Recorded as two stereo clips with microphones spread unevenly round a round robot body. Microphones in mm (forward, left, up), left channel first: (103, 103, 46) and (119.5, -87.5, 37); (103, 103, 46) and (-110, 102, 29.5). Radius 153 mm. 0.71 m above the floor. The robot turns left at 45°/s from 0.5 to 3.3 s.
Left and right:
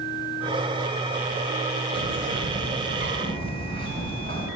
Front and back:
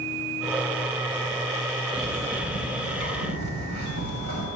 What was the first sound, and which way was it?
A bird, 85° right.